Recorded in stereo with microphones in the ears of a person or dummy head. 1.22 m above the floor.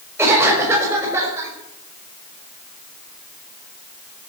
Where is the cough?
15° right (ahead or behind), 6 m.